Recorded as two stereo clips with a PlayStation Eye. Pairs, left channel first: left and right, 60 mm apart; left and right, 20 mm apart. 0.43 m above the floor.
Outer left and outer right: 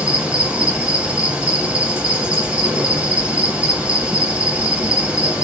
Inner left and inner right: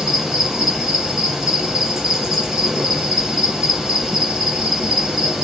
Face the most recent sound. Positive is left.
turn(degrees=-20)  # may be behind; listen again after turning